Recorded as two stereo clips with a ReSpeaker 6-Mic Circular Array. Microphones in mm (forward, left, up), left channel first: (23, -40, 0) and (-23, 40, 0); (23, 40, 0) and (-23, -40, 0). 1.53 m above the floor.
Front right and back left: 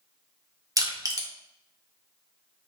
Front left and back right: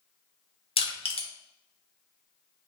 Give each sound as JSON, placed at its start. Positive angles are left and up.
{"t": 0.8, "sound": "crushing", "azimuth_deg": 65, "distance_m": 0.9}